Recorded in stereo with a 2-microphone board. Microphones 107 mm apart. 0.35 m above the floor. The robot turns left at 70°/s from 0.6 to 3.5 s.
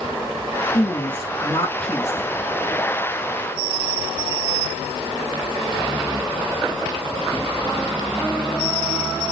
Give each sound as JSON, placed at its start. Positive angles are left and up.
{"t": 0.7, "sound": "a woman speaking", "azimuth_deg": 85, "distance_m": 3.0}